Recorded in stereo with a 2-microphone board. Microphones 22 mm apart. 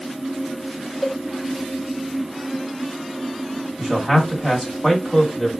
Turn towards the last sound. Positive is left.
turn(degrees=10)  # may be behind; listen again after turning